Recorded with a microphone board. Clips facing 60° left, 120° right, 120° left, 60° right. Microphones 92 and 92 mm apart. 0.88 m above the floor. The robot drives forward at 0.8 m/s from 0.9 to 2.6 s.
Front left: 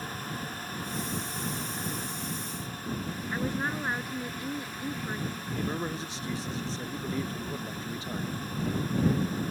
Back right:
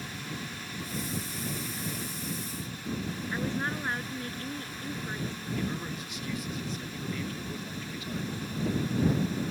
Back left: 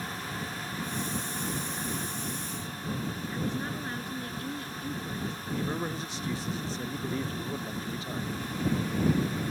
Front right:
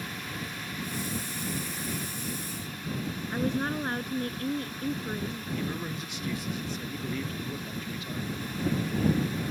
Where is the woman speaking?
20° right.